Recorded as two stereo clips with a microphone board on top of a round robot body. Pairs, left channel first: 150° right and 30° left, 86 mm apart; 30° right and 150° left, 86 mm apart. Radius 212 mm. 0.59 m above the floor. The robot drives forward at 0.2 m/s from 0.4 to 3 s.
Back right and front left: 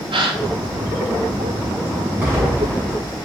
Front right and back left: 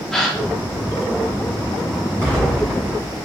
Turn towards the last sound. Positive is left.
turn(degrees=105)